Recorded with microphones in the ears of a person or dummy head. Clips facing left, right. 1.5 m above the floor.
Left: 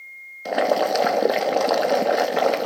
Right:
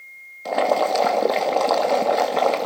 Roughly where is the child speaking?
No child speaking in this recording.